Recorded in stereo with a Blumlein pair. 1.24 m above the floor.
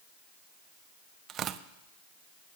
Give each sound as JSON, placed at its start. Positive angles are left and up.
{"t": 1.3, "sound": "tearing paper", "azimuth_deg": -30, "distance_m": 0.7}